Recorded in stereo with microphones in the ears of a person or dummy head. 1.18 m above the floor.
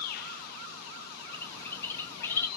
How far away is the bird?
About 0.8 m.